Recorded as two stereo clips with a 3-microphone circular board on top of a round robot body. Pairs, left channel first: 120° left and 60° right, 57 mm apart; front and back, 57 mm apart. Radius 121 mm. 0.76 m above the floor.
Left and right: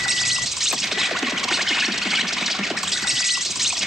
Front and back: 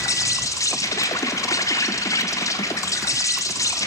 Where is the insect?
25° left, 0.9 m.